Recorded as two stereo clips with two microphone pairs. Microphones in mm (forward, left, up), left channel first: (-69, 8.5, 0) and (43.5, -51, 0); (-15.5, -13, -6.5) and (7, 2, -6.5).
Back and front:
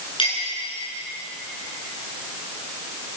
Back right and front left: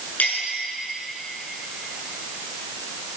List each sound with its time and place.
0.2 s a clink: 160° right, 8.5 m